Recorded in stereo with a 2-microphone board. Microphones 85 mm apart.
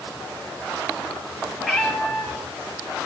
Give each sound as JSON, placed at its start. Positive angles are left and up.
{"t": 1.6, "sound": "a cat meowing", "side_deg": 5, "distance_m": 3.5}